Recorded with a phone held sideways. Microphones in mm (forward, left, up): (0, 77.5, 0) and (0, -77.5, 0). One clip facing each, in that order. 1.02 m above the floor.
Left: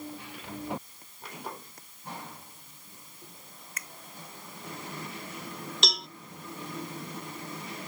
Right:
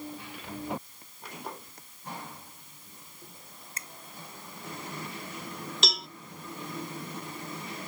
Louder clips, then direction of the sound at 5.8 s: Even; centre (ahead or behind).